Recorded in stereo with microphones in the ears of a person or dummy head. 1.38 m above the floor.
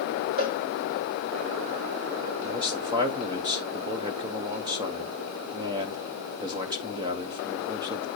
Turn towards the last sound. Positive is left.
turn(degrees=-25)  # may be behind; listen again after turning